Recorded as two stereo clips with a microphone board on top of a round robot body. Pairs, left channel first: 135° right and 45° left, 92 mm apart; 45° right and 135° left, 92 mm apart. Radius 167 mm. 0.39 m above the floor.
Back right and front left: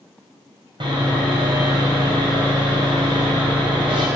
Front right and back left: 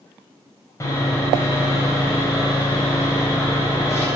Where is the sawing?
10° left, 3.5 m.